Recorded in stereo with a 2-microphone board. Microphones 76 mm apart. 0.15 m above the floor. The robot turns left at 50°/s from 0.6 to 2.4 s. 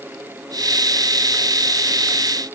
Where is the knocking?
I don't hear knocking.